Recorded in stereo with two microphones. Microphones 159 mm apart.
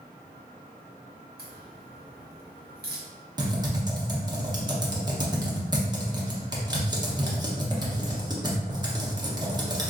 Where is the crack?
85° right, 0.9 m.